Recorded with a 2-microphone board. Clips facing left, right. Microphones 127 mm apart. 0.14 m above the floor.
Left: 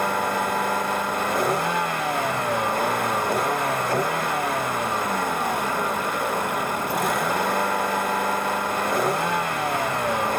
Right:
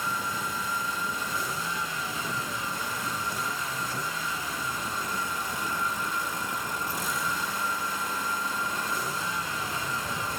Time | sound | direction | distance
0.0 | a vehicle | 65° left (ahead or behind) | ?